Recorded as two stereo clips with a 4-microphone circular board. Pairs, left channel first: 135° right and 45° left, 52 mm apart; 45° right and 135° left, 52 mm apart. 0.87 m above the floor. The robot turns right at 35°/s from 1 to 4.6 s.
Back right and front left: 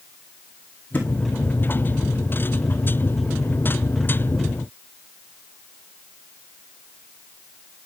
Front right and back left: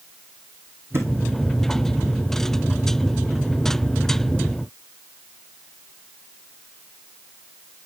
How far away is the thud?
About 2 m.